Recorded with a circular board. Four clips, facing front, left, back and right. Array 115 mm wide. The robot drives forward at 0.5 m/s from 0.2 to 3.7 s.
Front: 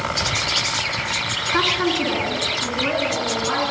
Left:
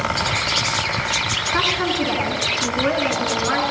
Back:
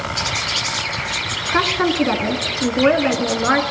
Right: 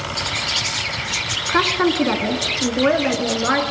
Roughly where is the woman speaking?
Behind right.